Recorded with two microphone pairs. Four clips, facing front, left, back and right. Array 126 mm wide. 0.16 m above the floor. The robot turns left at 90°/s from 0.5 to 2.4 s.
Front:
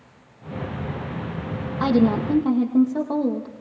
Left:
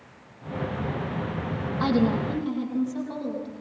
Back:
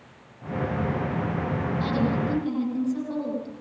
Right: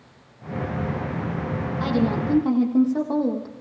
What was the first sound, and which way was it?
A woman speaking, 15° left.